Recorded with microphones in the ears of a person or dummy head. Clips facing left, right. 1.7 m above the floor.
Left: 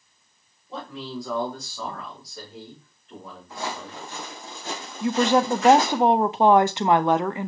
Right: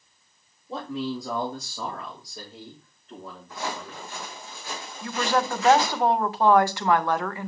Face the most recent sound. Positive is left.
turn(degrees=20)  # may be behind; listen again after turning